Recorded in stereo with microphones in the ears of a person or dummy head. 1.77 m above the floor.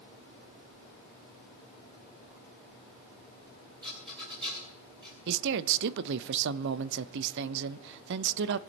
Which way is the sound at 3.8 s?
25° right (ahead or behind).